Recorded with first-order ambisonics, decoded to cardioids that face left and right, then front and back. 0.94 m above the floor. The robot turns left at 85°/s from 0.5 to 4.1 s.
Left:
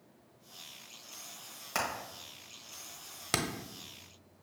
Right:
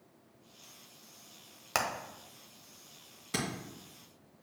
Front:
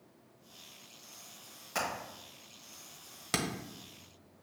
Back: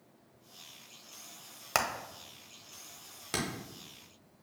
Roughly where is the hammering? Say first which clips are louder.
Right 2 dB, back 4 dB; behind right.